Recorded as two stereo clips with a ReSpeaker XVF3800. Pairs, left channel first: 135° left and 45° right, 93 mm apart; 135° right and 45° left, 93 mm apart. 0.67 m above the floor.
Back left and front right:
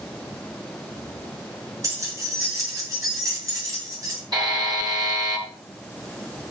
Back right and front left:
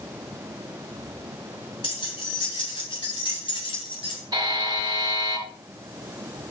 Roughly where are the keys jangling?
Right.